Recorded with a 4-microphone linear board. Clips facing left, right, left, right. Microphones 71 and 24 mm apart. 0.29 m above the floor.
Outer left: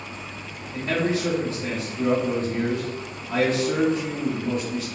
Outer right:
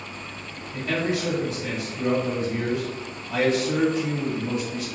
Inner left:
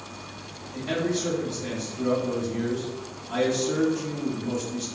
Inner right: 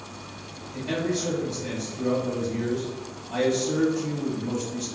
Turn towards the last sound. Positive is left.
turn(degrees=35)  # may be behind; listen again after turning